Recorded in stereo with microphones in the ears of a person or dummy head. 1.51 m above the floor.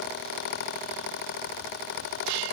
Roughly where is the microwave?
No microwave in this recording.